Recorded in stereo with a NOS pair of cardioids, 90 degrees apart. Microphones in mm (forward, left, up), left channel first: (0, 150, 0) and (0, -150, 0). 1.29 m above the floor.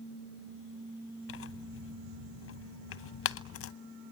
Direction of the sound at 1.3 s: 45° left.